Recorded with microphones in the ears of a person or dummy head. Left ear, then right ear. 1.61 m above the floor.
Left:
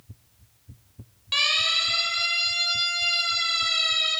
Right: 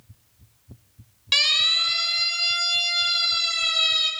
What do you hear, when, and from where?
1.3 s a siren: 40° right (ahead or behind), 4.5 m; by 4.1 s 45° right (ahead or behind), 6.5 m